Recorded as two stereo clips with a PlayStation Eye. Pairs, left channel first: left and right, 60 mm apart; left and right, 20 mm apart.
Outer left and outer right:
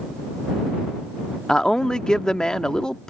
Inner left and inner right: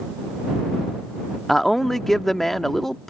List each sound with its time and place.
1.5 s a man speaking: 10° left (ahead or behind)